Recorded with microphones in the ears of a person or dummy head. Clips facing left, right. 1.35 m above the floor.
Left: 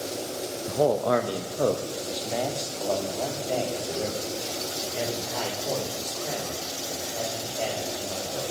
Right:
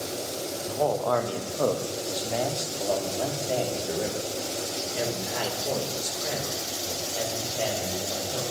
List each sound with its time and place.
0.7 s a man speaking: 45° left (ahead or behind), 1.0 m; by 8.4 s 20° right (ahead or behind), 5.5 m